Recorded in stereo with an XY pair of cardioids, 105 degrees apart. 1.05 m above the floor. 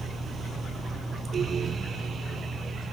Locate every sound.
0.0 s a fan: 45° right